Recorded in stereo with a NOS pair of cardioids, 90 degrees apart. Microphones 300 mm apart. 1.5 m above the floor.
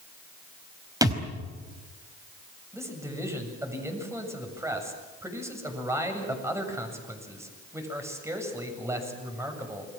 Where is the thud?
10° right, 4.5 m.